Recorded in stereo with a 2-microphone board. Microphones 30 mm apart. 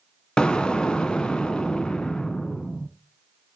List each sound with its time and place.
0.4 s an explosion: 25° left (ahead or behind), 0.8 m